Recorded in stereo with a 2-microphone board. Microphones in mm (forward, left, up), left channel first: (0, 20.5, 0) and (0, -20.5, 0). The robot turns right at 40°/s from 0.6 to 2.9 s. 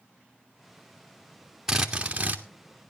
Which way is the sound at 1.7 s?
165° right.